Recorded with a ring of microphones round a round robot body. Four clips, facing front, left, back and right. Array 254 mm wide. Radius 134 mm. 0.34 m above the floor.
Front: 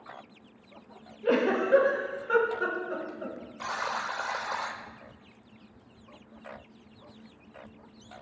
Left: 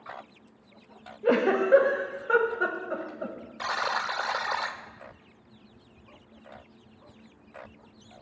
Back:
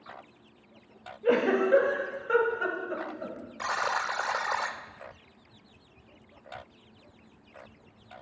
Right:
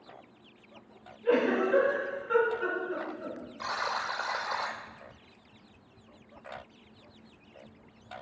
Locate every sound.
1.2 s a giggle: 100° left, 1.5 m
3.6 s a buzzer: 130° left, 0.6 m